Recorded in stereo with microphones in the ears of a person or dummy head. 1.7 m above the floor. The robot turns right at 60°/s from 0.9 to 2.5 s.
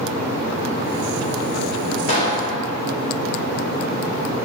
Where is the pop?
40° left (ahead or behind), 3 m; by 2.4 s 15° left (ahead or behind), 3 m.